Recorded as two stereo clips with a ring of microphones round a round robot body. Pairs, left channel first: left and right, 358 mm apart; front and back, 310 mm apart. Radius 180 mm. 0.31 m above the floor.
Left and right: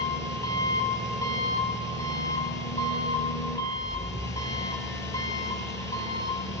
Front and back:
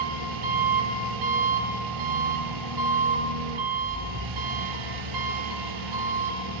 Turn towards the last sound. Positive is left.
turn(degrees=170)